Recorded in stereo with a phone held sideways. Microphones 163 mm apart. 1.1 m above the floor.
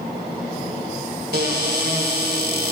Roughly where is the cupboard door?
Right.